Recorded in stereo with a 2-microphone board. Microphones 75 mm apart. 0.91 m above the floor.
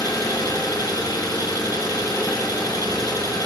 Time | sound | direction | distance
0.0 | an engine running | 55° left (ahead or behind) | 7.5 m